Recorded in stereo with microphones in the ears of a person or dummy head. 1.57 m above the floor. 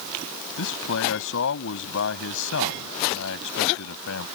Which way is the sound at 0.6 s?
70° left (ahead or behind).